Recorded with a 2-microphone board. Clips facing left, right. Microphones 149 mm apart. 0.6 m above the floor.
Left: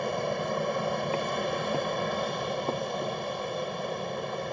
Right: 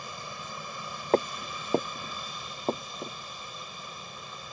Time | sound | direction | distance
0.0 | an aircraft | 60° left (ahead or behind) | ?
1.1 | footsteps | 50° right (ahead or behind) | ?